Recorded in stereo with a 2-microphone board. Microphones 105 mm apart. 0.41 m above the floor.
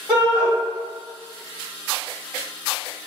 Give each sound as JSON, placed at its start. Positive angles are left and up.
{"t": 0.1, "sound": "a shout", "side_deg": 25, "distance_m": 1.8}